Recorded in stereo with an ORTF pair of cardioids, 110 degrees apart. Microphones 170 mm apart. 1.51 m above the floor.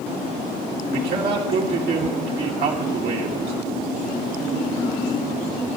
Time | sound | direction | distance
0.9 | a man speaking | 65° right | 3 m